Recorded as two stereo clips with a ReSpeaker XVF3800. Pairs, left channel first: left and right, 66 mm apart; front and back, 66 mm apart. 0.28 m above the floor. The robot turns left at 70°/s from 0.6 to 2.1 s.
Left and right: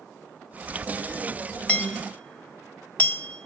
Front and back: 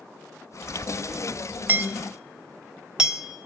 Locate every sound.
1.7 s hammering: 150° left, 1.2 m; by 3.5 s 120° left, 1.2 m